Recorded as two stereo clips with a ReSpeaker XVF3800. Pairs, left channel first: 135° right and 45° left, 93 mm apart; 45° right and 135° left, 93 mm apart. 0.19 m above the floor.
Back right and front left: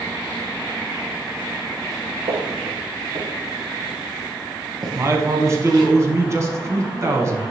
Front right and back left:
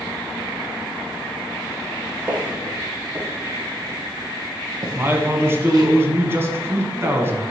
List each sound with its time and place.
2.3 s footsteps: 55° left, 1.6 m; by 5.9 s 90° left, 3.5 m
5.0 s a man speaking: 80° left, 1.3 m